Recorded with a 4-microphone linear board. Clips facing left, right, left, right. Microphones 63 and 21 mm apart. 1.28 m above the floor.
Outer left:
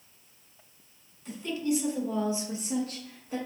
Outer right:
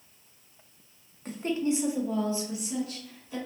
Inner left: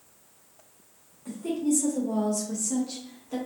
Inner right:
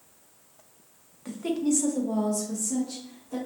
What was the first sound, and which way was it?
A woman speaking, 50° right (ahead or behind).